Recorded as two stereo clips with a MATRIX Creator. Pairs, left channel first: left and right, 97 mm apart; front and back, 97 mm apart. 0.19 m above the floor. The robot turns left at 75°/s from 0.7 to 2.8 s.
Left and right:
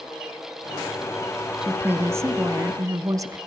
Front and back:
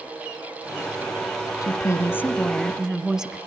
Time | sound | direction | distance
1.6 | a woman speaking | 10° right | 1.2 m